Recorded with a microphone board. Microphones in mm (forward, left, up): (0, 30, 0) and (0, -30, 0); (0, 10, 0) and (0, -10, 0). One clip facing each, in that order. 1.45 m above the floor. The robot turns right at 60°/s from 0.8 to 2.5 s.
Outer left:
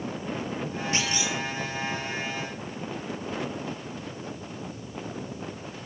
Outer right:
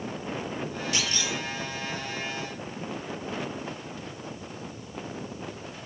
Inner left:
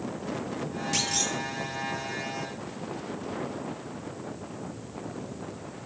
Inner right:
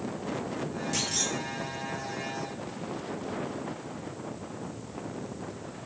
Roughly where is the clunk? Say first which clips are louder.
Outer left 2 dB, inner left 3 dB; left.